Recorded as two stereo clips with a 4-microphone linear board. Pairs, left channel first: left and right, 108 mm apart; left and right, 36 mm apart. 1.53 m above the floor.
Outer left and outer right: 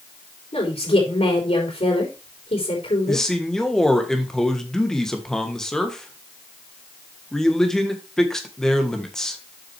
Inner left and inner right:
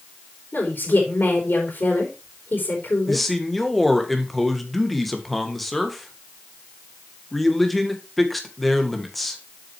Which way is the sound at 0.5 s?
65° left (ahead or behind).